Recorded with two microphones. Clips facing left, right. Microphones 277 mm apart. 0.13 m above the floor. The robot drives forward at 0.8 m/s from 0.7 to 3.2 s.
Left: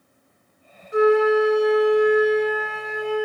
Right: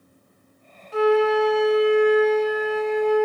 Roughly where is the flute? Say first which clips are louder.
Left 2 dB; centre.